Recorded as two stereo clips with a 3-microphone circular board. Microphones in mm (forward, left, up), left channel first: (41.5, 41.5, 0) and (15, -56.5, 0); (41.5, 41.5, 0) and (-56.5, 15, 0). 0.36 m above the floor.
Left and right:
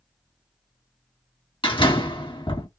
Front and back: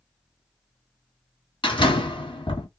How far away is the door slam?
About 2.5 m.